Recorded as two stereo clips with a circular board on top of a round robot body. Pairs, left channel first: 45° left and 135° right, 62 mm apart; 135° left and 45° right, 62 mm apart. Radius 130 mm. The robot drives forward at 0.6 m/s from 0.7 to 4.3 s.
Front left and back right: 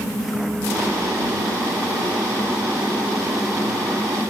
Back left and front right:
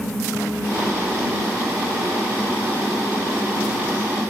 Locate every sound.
Only background noise.